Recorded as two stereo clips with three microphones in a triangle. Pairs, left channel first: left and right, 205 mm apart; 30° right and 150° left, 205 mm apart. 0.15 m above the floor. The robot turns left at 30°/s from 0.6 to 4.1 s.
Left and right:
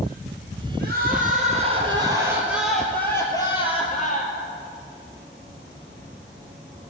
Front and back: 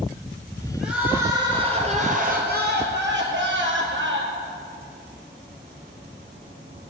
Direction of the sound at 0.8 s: 120° right.